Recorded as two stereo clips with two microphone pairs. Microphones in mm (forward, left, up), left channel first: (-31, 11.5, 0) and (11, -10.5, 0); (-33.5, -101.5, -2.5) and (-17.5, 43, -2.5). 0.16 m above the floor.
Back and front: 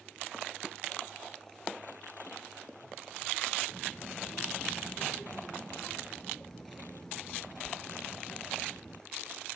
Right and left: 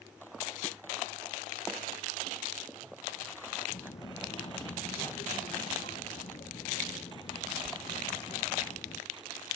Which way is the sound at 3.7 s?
135° right.